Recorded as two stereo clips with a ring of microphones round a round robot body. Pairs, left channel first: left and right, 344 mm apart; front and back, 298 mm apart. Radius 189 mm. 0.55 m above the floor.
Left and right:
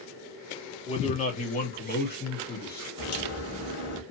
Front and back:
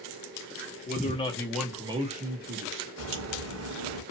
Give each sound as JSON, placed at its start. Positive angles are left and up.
{"t": 0.9, "sound": "a man speaking", "azimuth_deg": 25, "distance_m": 1.1}
{"t": 3.0, "sound": "a crack", "azimuth_deg": 140, "distance_m": 1.1}